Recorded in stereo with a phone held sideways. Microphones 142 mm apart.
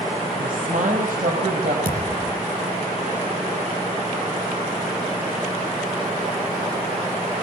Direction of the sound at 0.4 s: 75° right (ahead or behind).